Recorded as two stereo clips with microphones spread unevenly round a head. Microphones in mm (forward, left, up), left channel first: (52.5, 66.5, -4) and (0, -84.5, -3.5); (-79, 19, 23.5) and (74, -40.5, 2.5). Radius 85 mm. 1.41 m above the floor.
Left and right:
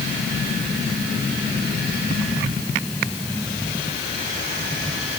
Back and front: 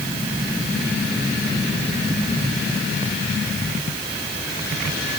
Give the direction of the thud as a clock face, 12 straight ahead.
No thud in this recording.